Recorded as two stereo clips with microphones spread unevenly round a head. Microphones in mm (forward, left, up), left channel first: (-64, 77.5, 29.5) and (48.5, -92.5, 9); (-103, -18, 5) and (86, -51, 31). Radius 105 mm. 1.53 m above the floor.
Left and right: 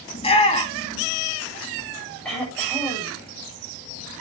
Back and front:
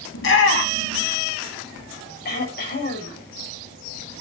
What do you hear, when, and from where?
0.1 s a shout: 175° right, 3.5 m
2.2 s throat clearing: 150° right, 7 m